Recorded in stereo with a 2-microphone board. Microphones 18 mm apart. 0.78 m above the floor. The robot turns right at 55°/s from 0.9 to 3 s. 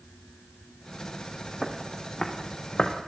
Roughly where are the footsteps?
Centre.